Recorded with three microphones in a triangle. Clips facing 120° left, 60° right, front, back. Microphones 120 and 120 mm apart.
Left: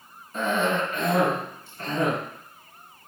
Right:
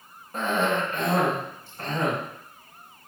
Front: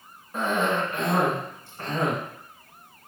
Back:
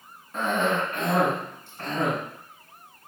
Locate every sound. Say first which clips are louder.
0.3 s a cough: even, even; 75° right, 2.0 m